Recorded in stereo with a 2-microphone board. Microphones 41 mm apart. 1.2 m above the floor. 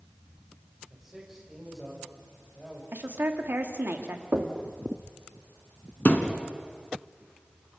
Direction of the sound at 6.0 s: 50° left (ahead or behind).